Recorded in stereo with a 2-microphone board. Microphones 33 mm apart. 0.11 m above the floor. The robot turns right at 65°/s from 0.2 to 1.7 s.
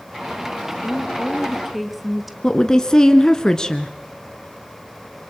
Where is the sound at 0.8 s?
130° left, 2.5 m; by 2.3 s 175° right, 2.5 m.